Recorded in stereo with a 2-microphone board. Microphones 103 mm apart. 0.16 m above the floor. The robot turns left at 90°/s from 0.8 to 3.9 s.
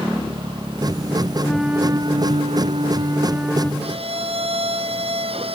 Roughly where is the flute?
Ahead.